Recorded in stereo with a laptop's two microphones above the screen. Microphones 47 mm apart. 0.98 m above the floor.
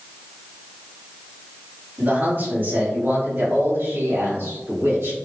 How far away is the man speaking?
About 1.8 m.